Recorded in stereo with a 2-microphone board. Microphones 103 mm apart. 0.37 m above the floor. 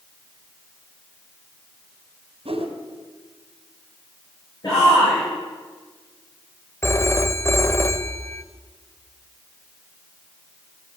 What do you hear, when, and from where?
2.5 s a whoosh: 65° right (ahead or behind), 3 m
4.6 s a shout: 40° left (ahead or behind), 8.5 m
6.8 s a phone ringing: 25° left (ahead or behind), 0.7 m